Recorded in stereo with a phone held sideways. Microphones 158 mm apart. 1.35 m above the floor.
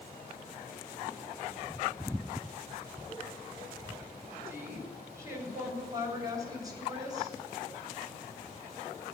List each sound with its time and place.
4.5 s a woman speaking: 15° right (ahead or behind), 6 m; by 7.3 s 25° right (ahead or behind), 7.5 m